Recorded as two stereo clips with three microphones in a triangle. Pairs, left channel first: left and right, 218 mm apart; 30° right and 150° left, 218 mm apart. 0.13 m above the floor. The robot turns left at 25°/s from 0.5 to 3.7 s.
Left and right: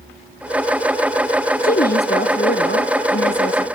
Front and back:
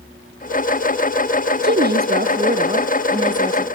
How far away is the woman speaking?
About 2 m.